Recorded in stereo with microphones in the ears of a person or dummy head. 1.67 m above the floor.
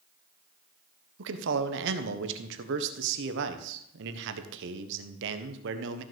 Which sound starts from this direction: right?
A man speaking, at 1.2 s.